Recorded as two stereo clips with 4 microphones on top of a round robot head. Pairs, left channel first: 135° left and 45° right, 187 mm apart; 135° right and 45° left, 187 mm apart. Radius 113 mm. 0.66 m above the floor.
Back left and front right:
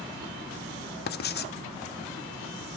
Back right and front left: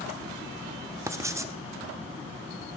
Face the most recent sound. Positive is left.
turn(degrees=115)